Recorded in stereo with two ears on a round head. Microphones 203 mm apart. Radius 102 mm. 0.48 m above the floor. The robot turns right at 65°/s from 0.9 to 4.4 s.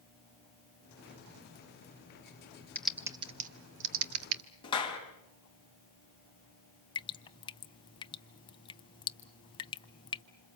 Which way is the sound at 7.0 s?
20° left (ahead or behind).